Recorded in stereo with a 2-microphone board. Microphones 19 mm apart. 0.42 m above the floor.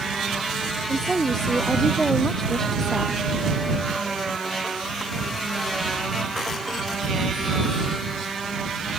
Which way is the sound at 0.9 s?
15° left (ahead or behind).